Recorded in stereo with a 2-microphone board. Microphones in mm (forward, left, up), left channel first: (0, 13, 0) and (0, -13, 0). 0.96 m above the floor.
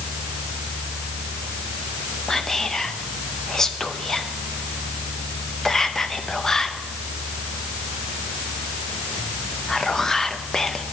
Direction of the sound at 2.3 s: 20° left (ahead or behind).